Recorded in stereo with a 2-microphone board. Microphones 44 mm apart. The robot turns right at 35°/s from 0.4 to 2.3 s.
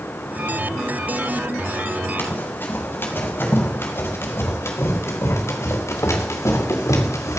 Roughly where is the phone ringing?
I don't hear a phone ringing.